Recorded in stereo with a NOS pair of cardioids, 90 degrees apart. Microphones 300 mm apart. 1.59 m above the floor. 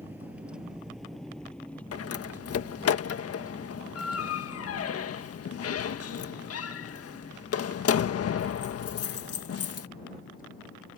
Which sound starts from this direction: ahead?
A vehicle, at 0.0 s.